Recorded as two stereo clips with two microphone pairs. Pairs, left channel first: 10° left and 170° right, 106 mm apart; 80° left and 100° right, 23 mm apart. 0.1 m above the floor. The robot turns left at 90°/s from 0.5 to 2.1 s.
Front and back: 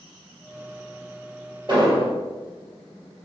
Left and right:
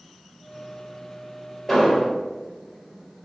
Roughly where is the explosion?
Behind.